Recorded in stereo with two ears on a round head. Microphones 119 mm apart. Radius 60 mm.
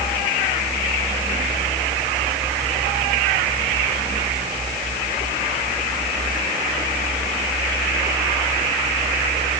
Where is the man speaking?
I don't hear a man speaking.